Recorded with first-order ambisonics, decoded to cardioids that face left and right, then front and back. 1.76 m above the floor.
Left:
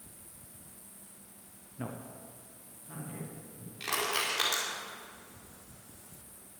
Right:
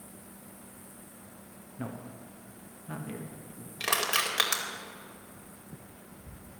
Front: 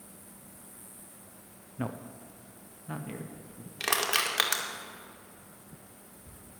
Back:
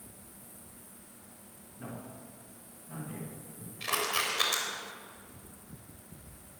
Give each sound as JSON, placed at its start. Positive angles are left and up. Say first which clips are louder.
{"t": 1.8, "sound": "a man speaking", "louder": "right 1 dB, front 6 dB", "azimuth_deg": 0, "distance_m": 0.8}
{"t": 3.8, "sound": "crushing", "louder": "right 4 dB, front 3 dB", "azimuth_deg": -30, "distance_m": 2.0}